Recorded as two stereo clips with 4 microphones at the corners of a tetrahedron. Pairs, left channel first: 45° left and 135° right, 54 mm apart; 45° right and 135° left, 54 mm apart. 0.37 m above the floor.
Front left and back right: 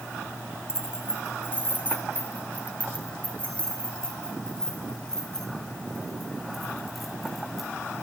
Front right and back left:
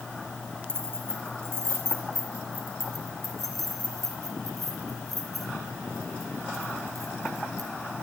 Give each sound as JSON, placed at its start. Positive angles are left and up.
{"t": 0.7, "sound": "keys jangling", "azimuth_deg": 90, "distance_m": 3.5}